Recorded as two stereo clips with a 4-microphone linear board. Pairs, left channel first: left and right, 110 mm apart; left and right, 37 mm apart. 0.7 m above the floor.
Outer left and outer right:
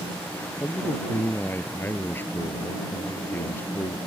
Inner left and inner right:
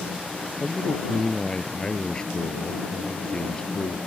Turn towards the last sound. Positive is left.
turn(degrees=20)  # may be behind; listen again after turning